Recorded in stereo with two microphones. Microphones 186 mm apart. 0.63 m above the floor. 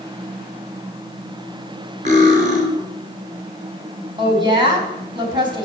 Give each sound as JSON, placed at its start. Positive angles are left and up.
{"t": 2.0, "sound": "cutlery clinking", "side_deg": -40, "distance_m": 5.0}
{"t": 4.2, "sound": "a woman speaking", "side_deg": -25, "distance_m": 4.0}